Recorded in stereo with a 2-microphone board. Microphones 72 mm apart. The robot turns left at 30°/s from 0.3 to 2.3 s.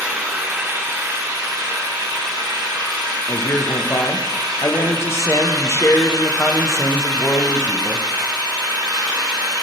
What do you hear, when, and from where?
0.0 s an engine running: 20° right, 1.7 m; by 9.6 s 80° right, 1.7 m
3.3 s a man speaking: 40° left (ahead or behind), 0.5 m